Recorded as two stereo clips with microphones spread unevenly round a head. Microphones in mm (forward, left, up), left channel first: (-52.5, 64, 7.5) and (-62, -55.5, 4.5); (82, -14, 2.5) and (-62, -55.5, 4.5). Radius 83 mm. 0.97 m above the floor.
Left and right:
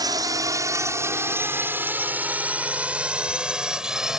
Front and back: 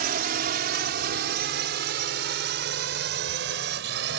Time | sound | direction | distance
0.0 | a drone | 145° right | ?